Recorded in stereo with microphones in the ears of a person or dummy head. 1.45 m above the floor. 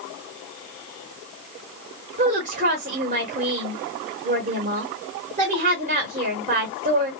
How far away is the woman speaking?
About 1.3 m.